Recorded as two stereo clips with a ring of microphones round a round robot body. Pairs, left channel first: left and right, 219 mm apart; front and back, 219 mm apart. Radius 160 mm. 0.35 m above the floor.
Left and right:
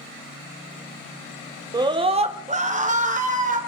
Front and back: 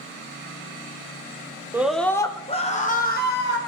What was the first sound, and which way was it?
A scream, 120° right.